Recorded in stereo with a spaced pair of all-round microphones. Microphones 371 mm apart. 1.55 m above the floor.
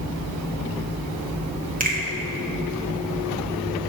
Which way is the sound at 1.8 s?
20° right (ahead or behind).